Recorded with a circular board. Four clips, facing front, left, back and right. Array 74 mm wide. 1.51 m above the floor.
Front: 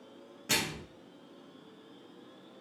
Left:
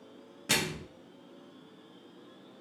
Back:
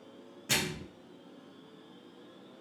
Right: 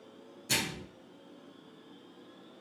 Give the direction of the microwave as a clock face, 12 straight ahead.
9 o'clock.